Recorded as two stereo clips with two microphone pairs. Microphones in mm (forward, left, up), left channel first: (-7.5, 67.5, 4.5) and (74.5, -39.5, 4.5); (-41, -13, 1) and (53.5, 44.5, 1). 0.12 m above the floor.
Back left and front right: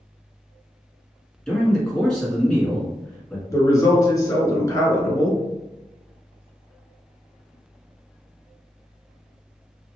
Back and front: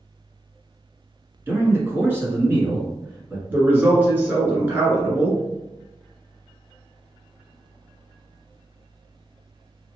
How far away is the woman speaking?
About 1.4 m.